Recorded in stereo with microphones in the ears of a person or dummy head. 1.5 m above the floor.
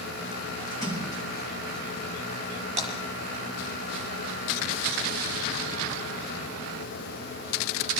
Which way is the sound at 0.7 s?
15° left (ahead or behind).